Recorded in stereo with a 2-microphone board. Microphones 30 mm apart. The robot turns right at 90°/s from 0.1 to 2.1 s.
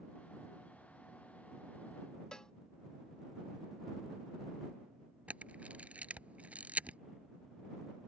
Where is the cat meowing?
I don't hear a cat meowing.